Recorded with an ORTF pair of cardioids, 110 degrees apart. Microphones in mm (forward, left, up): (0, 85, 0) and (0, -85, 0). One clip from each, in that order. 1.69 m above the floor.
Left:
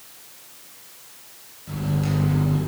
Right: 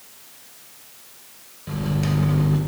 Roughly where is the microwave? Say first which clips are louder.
Right 1 dB; ahead right.